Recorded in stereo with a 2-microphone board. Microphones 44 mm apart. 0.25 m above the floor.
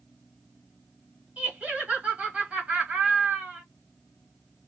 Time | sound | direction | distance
1.4 | laughter | 30° right (ahead or behind) | 1.4 m